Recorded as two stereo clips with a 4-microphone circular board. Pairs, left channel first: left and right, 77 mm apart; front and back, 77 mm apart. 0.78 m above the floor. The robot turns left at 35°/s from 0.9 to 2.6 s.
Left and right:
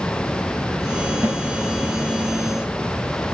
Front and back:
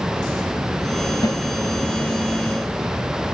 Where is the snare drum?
15° right, 4.5 m; by 1.4 s 20° right, 4.5 m.